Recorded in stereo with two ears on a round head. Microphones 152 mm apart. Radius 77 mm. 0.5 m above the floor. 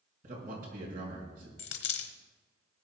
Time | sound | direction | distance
0.2 | a man speaking | 55° right (ahead or behind) | 6 m
1.6 | a dropped coin | 70° left (ahead or behind) | 1.1 m